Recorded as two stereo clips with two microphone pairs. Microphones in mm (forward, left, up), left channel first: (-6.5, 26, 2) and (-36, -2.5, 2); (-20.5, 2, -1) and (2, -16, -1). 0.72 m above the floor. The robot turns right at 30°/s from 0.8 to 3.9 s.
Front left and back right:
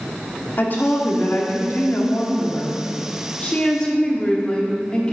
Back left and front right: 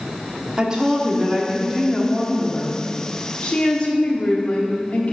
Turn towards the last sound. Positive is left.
turn(degrees=110)